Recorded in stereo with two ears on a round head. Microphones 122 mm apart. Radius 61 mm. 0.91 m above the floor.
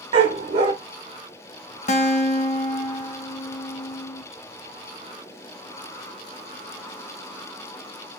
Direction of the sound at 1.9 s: 55° left (ahead or behind).